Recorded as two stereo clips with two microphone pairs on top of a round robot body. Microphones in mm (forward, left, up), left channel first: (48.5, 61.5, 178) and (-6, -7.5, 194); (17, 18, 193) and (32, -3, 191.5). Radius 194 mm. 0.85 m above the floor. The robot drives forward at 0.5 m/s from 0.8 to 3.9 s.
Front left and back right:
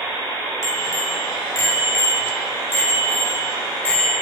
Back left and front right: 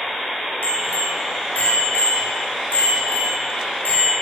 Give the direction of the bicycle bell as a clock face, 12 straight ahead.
8 o'clock.